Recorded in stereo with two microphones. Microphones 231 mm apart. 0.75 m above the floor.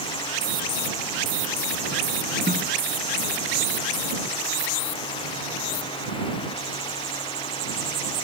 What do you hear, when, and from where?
2.5 s a snare drum: 40° right (ahead or behind)